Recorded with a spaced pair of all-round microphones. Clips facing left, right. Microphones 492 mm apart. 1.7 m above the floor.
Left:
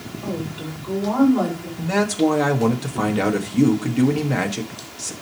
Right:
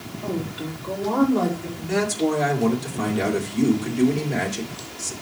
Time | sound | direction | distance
0.2 | a woman speaking | 40° right (ahead or behind) | 6.5 m
1.8 | a man speaking | 80° left | 1.6 m